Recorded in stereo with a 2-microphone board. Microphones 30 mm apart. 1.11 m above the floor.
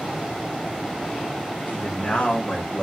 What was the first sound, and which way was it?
A man speaking, 50° left (ahead or behind).